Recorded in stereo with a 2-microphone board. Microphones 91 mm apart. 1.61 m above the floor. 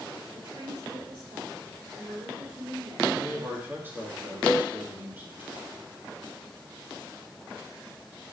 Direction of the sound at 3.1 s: 25° right (ahead or behind).